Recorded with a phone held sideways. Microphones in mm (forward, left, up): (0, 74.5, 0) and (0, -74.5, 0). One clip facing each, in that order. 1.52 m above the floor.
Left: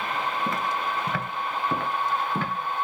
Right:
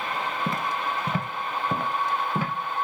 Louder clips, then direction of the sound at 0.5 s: Even; 15° right (ahead or behind).